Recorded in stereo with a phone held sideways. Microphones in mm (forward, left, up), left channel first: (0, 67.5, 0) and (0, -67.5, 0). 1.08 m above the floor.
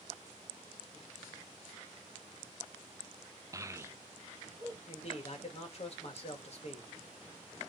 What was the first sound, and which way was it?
A child speaking, 25° right (ahead or behind).